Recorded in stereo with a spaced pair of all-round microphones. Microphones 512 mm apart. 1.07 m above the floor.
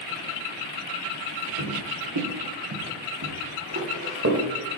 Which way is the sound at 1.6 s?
65° right (ahead or behind).